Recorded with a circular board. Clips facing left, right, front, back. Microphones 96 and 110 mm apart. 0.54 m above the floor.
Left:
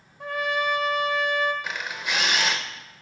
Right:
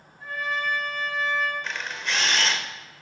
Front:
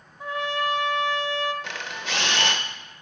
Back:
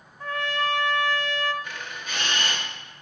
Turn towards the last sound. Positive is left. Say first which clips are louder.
# left 1 dB, front 3 dB
turn(degrees=10)